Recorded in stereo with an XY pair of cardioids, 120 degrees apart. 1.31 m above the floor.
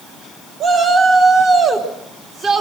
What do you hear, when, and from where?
0.6 s a shout: 40° right, 3 m